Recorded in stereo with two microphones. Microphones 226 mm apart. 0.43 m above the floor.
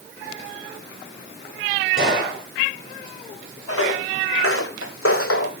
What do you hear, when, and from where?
2.0 s a gunshot: 45° right (ahead or behind), 7 m
3.7 s footsteps: 75° left (ahead or behind), 2 m; by 5.5 s 70° left (ahead or behind), 1.2 m